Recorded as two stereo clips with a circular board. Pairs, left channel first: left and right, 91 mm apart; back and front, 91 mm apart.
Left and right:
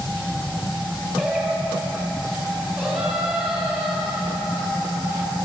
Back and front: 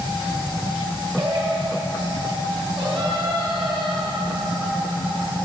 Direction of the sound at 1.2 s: 10° right.